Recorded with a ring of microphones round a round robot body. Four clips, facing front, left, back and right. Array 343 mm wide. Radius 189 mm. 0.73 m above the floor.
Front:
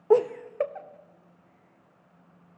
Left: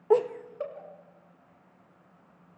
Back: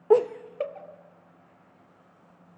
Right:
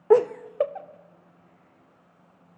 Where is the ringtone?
No ringtone in this recording.